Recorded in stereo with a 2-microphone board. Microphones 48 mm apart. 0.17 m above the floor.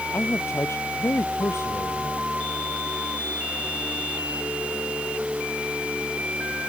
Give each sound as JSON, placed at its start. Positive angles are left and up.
{"t": 0.1, "sound": "a man speaking", "side_deg": 65}